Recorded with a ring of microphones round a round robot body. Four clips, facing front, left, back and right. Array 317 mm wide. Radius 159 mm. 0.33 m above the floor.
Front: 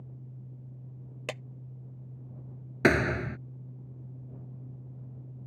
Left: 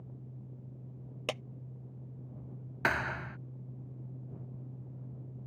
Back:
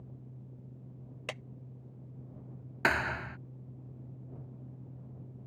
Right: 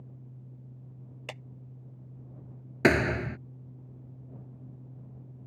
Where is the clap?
55° left.